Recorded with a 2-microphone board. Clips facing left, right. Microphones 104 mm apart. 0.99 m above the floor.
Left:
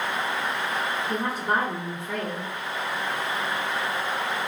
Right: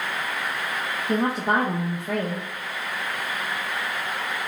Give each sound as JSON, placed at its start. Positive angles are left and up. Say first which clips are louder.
{"t": 1.1, "sound": "a woman speaking", "louder": "right 6 dB", "side_deg": -70, "distance_m": 0.6}